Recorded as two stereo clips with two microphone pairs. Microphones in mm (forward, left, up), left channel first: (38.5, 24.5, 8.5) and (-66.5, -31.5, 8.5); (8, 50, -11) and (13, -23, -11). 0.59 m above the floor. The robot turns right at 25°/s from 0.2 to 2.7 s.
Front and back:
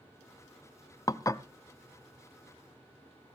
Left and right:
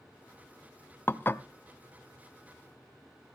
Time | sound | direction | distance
1.1 | dishes clattering | 60° left | 0.5 m